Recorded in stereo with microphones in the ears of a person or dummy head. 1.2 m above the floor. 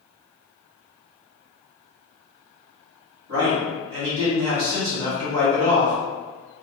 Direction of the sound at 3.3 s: 65° right (ahead or behind).